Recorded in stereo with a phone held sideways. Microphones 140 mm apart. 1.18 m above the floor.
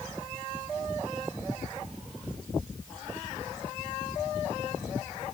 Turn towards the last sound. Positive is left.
No sound to turn to.